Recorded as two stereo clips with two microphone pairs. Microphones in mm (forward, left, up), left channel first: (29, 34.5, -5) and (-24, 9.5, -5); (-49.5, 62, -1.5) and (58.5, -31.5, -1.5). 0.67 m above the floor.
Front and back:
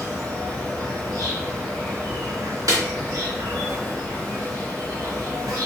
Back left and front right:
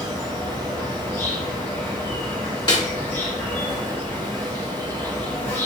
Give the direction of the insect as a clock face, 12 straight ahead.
5 o'clock.